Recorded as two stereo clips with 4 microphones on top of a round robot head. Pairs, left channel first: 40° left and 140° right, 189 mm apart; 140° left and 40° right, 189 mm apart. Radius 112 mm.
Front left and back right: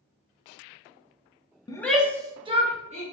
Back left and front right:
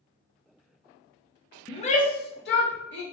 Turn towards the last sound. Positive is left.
turn(degrees=165)